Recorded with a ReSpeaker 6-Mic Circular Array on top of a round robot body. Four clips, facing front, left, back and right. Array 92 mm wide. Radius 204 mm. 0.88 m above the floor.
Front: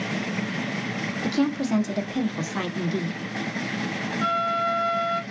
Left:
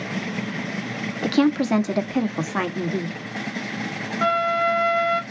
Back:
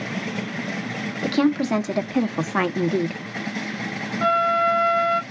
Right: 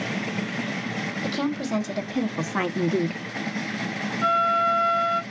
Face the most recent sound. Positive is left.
turn(degrees=115)